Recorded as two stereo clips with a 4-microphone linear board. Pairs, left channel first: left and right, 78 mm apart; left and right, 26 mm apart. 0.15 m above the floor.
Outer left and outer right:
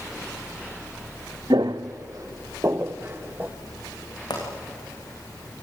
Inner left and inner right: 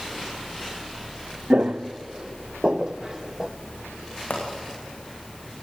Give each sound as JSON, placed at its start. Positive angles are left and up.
{"t": 1.5, "sound": "footsteps", "side_deg": -75, "distance_m": 1.1}
{"t": 4.3, "sound": "a pop", "side_deg": 75, "distance_m": 6.5}